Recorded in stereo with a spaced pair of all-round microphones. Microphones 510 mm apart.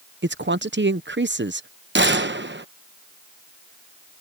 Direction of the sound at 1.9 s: 20° right (ahead or behind).